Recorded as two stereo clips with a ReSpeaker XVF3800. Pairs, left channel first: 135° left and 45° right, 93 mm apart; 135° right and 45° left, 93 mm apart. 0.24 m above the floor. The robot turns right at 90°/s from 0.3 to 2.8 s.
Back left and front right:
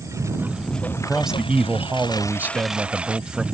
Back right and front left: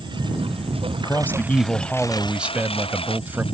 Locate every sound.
0.0 s a lawn mower: 10° left; by 3.5 s 125° right
1.0 s a man speaking: 145° right; by 3.5 s 15° left